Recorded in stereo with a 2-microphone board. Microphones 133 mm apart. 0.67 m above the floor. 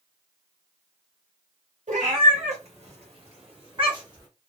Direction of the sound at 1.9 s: 75° right (ahead or behind).